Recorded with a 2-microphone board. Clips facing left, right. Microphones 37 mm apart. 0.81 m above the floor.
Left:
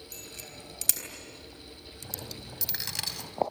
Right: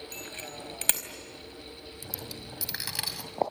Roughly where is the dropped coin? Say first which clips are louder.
Even; centre.